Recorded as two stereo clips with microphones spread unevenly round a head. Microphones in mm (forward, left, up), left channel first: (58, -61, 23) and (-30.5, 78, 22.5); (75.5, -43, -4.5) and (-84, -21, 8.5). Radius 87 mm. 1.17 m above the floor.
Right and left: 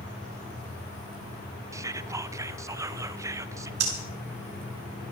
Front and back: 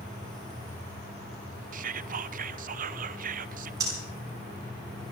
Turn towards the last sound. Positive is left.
turn(degrees=100)